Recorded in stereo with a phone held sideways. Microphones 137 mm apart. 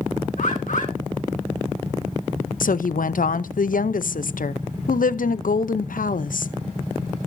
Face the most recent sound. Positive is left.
turn(degrees=85)